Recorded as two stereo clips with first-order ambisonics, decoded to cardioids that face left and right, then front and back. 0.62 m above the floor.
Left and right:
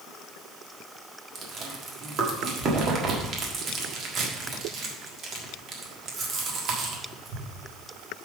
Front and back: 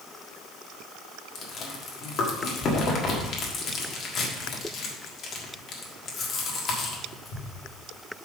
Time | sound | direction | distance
1.4 | chewing | 50° right | 1.5 m